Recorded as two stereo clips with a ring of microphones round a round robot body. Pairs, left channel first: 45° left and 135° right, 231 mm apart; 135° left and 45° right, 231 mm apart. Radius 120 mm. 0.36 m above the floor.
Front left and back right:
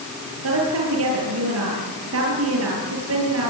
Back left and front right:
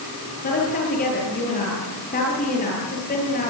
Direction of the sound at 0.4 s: 165° right.